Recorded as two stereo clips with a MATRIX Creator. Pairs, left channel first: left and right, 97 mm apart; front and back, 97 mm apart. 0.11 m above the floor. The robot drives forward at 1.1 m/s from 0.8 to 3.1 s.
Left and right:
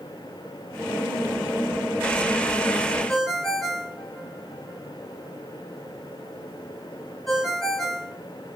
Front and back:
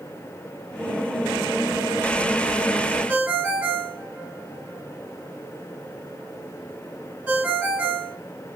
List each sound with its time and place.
3.1 s a ringtone: 170° left, 1.0 m